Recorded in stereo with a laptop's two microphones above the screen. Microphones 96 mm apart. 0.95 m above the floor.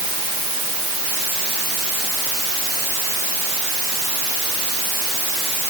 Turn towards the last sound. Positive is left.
No sound to turn to.